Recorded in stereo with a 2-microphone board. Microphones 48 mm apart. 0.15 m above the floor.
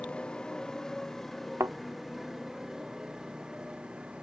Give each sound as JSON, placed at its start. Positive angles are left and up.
{"t": 0.0, "sound": "a motorcycle", "side_deg": 25}
{"t": 1.6, "sound": "a thud", "side_deg": -80}